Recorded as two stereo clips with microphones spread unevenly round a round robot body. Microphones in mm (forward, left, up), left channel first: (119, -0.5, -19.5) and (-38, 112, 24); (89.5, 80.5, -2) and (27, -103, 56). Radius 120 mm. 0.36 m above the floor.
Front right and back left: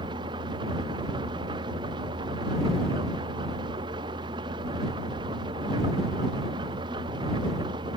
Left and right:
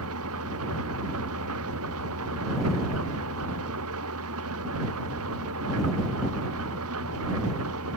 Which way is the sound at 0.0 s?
145° right.